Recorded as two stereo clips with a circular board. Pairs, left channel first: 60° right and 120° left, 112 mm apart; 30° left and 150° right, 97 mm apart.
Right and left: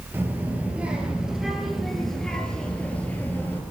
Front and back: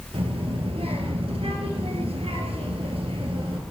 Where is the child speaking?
170° right, 3.5 m; by 3.6 s 130° right, 3.5 m.